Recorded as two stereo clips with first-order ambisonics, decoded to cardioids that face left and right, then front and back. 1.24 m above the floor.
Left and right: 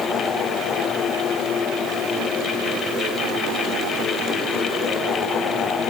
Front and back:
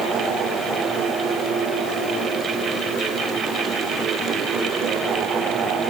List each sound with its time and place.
Only background noise.